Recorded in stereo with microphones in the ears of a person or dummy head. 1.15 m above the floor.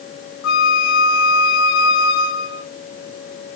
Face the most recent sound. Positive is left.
turn(degrees=70)  # may be behind; listen again after turning